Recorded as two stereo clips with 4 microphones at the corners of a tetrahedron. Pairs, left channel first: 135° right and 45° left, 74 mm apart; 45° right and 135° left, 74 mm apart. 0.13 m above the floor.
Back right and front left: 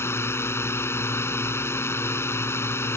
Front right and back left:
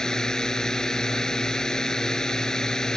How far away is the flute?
No flute in this recording.